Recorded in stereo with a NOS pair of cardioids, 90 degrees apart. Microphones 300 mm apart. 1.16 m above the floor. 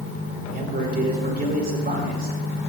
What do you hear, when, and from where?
0.5 s a man speaking: 30° right, 3.5 m